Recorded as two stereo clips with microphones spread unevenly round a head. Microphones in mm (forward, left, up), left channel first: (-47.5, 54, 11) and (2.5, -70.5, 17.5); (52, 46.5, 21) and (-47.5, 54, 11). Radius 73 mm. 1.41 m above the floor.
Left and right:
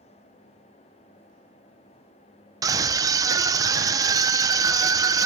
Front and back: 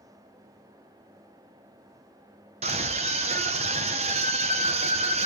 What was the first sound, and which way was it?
A scream, 135° right.